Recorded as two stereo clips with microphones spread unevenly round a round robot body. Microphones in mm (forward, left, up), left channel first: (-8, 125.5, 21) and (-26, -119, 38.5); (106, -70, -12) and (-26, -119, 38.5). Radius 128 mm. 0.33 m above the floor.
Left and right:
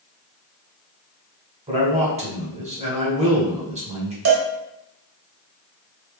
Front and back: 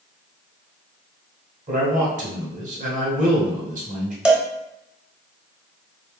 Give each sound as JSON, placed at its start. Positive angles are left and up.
{"t": 1.7, "sound": "a man speaking", "azimuth_deg": -145, "distance_m": 1.3}
{"t": 4.2, "sound": "a cowbell", "azimuth_deg": -65, "distance_m": 0.8}